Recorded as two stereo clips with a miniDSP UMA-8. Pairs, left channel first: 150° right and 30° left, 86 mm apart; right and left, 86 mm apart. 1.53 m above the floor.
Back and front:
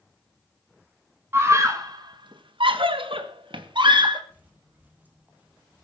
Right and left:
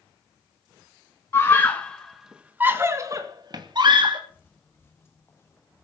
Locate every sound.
1.3 s a scream: 30° right, 1.9 m; by 4.2 s 60° left, 3 m
4.3 s footsteps: 35° right, 2 m; by 5.8 s 40° right, 3 m